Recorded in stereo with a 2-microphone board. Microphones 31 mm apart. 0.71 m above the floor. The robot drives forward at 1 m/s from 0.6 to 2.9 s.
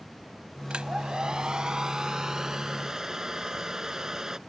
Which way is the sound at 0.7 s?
30° right (ahead or behind).